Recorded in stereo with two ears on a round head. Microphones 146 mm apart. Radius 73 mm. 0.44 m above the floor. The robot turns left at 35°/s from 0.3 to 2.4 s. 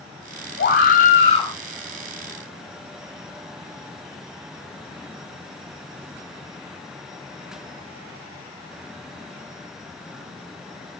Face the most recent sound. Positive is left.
turn(degrees=0)